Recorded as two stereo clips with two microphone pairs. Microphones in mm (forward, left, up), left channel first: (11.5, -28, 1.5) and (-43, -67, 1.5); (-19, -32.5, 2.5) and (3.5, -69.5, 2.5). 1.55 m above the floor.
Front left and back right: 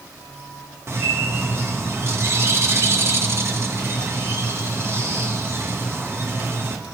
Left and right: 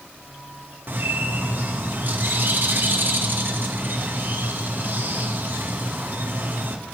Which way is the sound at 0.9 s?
95° right.